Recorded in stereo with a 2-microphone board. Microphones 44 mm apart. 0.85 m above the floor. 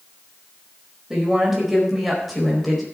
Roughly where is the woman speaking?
Centre.